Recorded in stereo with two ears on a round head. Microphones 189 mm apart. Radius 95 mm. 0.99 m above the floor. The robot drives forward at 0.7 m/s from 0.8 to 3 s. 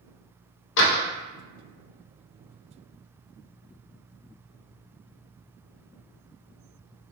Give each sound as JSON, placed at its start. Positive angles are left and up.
{"t": 0.8, "sound": "a door slam", "side_deg": 65, "distance_m": 0.7}